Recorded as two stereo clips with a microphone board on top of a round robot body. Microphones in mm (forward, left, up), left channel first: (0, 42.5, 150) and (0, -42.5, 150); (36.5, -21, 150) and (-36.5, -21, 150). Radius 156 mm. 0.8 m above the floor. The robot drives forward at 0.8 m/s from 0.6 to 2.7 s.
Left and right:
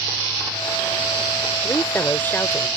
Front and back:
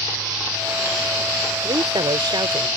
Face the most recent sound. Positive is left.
turn(degrees=160)